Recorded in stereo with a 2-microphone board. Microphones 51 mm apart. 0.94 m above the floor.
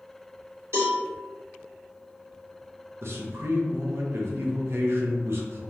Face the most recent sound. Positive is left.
turn(degrees=-55)  # may be behind; listen again after turning